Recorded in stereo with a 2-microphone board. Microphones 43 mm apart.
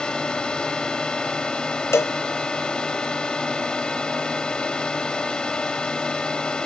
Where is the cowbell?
90° left.